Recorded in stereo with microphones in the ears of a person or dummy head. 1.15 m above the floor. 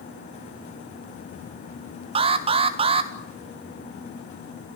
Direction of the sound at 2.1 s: 30° right (ahead or behind).